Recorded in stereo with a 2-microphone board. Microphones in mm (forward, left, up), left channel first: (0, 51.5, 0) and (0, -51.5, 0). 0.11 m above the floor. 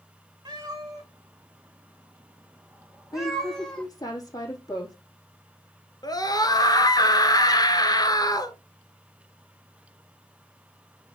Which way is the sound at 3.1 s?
35° left (ahead or behind).